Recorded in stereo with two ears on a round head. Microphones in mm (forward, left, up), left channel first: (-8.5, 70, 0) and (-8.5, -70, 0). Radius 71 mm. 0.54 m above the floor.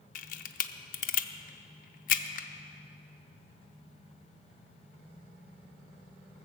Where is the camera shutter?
55° left (ahead or behind), 0.6 m.